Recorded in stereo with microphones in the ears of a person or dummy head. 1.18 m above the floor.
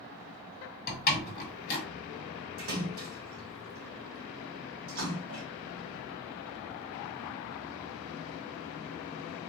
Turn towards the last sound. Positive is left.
turn(degrees=-65)  # may be behind; listen again after turning